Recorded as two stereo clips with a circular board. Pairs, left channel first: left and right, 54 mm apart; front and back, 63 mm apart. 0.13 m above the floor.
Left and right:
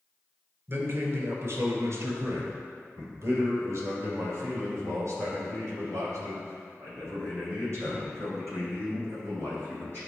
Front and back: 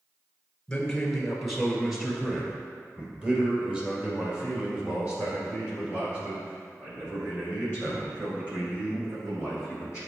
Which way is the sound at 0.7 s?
75° right.